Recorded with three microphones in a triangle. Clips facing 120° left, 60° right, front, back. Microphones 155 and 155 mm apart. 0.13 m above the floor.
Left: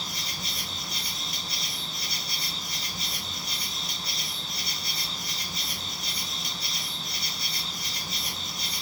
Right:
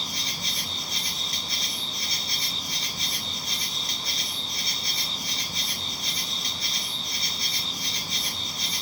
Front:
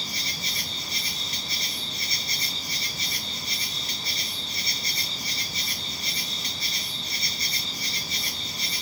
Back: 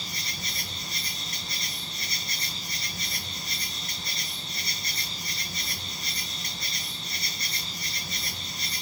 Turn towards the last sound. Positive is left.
turn(degrees=-155)